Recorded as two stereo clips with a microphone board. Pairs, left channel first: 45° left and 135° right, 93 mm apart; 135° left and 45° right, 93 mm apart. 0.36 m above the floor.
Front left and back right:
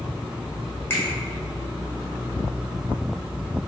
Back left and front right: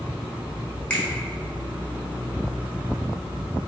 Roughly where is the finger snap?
Left.